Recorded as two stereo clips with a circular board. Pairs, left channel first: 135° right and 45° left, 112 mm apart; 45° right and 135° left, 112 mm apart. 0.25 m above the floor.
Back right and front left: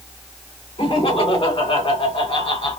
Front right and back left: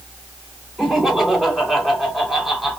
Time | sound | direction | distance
0.8 | laughter | 135° right | 3 m